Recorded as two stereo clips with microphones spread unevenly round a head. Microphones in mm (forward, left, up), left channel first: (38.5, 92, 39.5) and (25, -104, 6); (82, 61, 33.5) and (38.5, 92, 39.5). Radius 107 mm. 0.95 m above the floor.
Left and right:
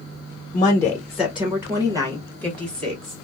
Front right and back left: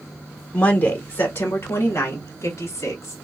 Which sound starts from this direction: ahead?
A woman speaking, at 0.5 s.